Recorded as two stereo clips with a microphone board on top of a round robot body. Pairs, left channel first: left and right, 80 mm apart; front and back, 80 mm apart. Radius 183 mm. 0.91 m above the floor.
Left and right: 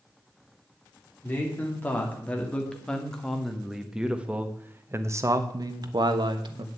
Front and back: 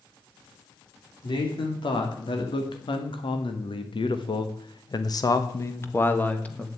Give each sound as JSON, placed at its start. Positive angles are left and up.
{"t": 1.2, "sound": "a man speaking", "azimuth_deg": 25, "distance_m": 3.0}